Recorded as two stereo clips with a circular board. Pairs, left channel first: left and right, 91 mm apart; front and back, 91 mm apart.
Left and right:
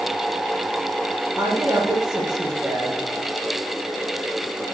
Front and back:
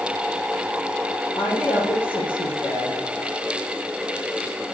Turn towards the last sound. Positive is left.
turn(degrees=-5)